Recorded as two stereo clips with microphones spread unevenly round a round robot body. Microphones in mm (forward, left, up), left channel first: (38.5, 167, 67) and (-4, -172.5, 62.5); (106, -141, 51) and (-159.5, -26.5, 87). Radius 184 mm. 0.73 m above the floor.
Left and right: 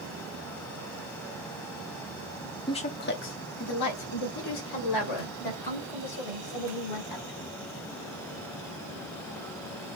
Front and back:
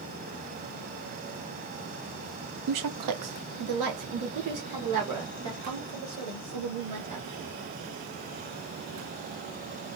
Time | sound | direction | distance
2.7 | a woman speaking | 160° left | 0.8 m